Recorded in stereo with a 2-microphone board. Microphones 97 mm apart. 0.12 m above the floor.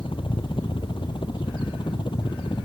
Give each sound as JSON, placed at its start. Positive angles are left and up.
{"t": 0.0, "sound": "a helicopter", "side_deg": 60}